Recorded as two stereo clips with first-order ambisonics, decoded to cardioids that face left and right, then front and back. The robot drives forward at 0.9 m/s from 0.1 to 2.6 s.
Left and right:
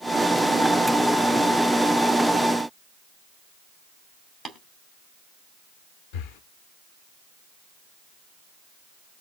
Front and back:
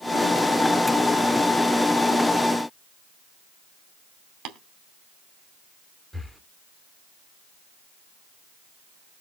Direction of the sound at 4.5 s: 170° left.